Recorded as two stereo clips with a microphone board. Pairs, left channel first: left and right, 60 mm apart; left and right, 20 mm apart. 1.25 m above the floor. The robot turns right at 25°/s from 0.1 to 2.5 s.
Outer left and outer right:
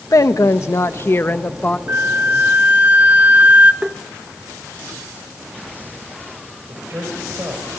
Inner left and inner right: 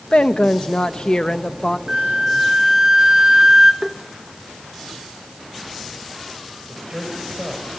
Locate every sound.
0.1 s a woman speaking: 110° left, 1.1 m; by 1.8 s 155° left, 1.1 m
1.9 s a flute: 40° right (ahead or behind), 0.6 m; by 3.7 s 30° right (ahead or behind), 0.6 m
3.8 s tapping: 15° right (ahead or behind), 0.9 m
6.7 s a man speaking: 45° right (ahead or behind), 5 m